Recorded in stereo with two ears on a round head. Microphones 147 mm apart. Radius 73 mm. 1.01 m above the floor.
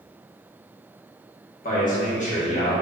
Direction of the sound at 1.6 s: 55° left (ahead or behind).